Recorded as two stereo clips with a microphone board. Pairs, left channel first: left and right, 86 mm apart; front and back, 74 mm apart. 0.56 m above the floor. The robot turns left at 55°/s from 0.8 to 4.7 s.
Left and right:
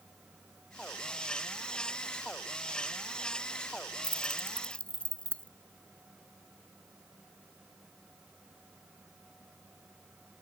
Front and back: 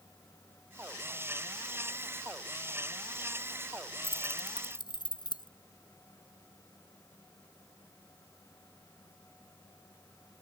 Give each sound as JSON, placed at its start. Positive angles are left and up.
{"t": 4.0, "sound": "keys jangling", "azimuth_deg": 50}